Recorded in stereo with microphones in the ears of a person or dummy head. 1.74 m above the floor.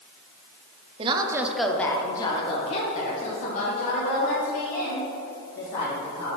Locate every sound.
1.0 s a woman speaking: 30° right (ahead or behind), 0.7 m; by 6.4 s 55° left (ahead or behind), 3.5 m